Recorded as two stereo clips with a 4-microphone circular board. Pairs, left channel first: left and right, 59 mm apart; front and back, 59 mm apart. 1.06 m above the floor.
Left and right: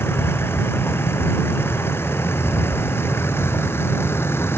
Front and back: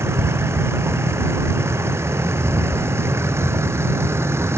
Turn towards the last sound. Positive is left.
turn(degrees=140)